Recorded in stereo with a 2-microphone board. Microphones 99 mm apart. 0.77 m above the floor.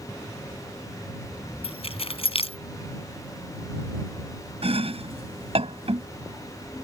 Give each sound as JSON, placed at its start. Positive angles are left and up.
{"t": 1.6, "sound": "keys jangling", "side_deg": 75}
{"t": 4.6, "sound": "chopping", "side_deg": -85}